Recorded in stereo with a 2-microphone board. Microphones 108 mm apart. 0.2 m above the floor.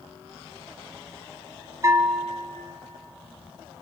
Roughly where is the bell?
Right.